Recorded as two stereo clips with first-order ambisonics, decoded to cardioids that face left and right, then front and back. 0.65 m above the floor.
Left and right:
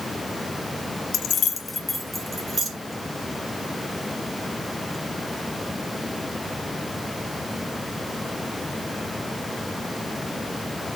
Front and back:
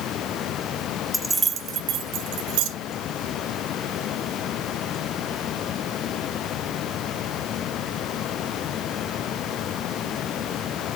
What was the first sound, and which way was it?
Keys jangling, 75° left.